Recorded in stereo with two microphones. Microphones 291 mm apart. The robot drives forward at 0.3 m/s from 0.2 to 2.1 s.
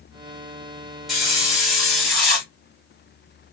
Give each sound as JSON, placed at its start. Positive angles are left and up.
{"t": 1.1, "sound": "a hiss", "side_deg": 0, "distance_m": 1.2}